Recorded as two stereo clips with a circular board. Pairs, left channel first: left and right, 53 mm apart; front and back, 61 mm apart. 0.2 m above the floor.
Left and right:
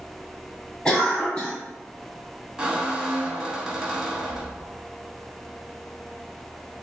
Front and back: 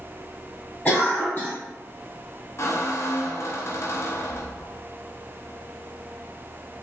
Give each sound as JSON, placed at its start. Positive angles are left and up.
{"t": 0.8, "sound": "a cough", "azimuth_deg": 35, "distance_m": 1.4}
{"t": 2.6, "sound": "a squeak", "azimuth_deg": -15, "distance_m": 0.7}